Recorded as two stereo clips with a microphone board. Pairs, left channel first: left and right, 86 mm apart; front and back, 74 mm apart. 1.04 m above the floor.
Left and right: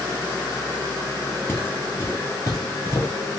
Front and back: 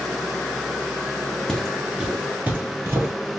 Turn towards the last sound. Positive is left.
turn(degrees=140)